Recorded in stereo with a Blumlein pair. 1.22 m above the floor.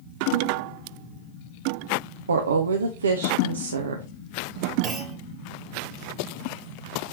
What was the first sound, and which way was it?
A woman speaking, 70° right.